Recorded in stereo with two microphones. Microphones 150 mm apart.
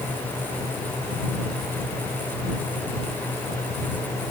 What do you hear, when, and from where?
Only background noise.